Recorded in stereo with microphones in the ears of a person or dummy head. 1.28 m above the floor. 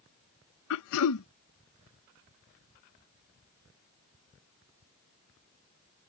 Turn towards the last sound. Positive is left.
turn(degrees=75)  # may be behind; listen again after turning